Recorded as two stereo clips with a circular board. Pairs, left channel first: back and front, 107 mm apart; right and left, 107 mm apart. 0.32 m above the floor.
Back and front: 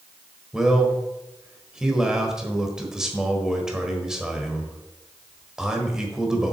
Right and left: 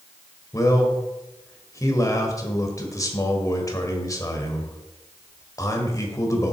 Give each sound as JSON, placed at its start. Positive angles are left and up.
{"t": 0.5, "sound": "a man speaking", "azimuth_deg": -80, "distance_m": 1.3}